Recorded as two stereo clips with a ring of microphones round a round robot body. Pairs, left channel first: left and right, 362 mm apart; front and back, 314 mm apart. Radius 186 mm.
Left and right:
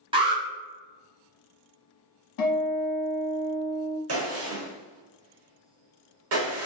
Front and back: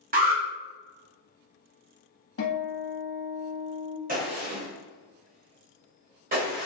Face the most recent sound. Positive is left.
turn(degrees=-125)